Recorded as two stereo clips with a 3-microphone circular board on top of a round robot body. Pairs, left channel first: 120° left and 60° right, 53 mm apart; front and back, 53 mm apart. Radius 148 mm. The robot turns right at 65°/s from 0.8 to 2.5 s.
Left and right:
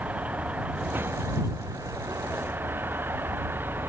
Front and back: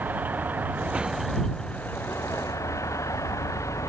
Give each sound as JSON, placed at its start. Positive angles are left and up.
{"t": 0.0, "sound": "a vehicle", "azimuth_deg": -125}